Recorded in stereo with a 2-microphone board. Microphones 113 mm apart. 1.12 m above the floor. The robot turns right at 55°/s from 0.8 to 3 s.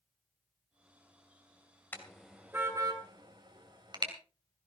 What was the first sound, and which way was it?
A car horn, 15° left (ahead or behind).